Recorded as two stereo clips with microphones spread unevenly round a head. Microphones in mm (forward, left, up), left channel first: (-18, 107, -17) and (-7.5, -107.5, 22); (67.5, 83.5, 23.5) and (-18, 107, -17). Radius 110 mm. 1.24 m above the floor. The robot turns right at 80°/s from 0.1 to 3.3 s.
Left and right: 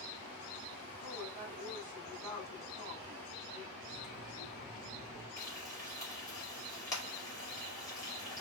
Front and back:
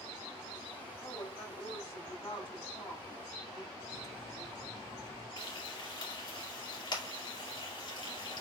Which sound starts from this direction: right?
A woman speaking, at 1.0 s.